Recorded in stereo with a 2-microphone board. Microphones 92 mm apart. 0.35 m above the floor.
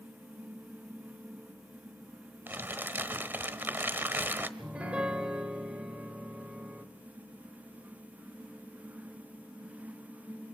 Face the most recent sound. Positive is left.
turn(degrees=-10)  # may be behind; listen again after turning